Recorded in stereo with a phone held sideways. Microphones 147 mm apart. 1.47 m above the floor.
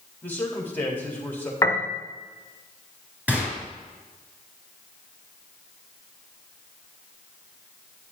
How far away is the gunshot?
About 3.5 m.